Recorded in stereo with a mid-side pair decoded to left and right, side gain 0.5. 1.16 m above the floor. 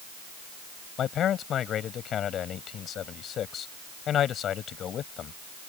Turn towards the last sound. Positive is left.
turn(degrees=55)